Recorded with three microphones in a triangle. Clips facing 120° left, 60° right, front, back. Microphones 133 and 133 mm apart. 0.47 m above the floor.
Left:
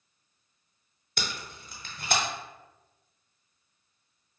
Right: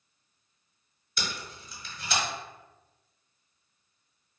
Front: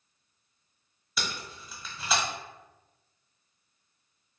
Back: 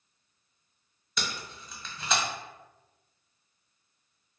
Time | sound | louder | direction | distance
1.2 | tape being pulled | even, even | 85° left | 0.6 m